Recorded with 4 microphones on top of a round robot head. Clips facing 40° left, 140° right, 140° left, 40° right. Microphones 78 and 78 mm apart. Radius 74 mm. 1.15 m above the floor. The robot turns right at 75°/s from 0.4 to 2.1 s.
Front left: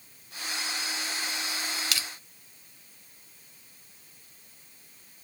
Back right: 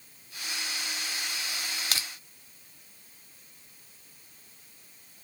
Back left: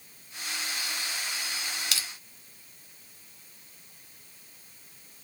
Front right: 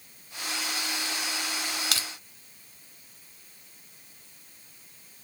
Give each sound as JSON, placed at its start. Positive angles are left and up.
{"t": 1.9, "sound": "crushing", "azimuth_deg": -90, "distance_m": 0.9}